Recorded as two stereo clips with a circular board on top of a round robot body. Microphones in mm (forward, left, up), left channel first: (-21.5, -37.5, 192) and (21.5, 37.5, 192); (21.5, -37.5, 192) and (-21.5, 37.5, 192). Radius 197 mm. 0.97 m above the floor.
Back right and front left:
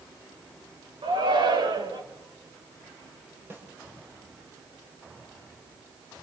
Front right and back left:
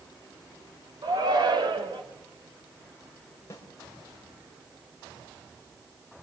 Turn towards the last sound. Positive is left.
turn(degrees=-5)